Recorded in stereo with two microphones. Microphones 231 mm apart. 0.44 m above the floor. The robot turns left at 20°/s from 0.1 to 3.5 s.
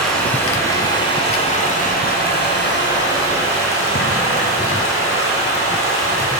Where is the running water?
Straight behind, 2.5 m; by 6.4 s 110° left, 2.5 m.